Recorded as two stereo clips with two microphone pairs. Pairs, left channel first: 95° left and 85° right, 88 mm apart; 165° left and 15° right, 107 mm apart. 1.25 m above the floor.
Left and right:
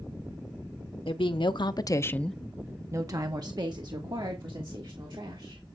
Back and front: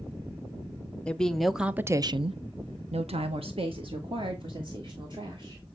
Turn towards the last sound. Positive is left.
turn(degrees=-60)